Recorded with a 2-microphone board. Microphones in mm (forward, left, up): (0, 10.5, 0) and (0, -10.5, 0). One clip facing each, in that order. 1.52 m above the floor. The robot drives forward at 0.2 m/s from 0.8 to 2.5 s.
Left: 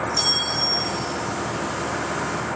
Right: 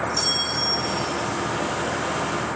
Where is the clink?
10° left (ahead or behind), 5.5 m.